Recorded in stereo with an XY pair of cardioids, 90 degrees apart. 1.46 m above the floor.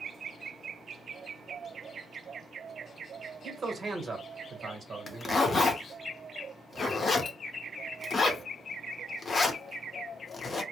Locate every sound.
3.4 s a man speaking: 45° right, 1.1 m
5.1 s a zipper: 40° left, 0.8 m